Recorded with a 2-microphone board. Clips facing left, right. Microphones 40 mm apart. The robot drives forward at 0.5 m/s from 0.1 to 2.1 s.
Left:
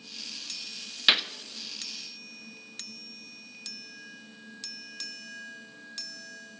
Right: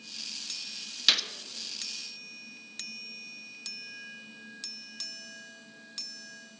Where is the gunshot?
25° left (ahead or behind), 0.8 m.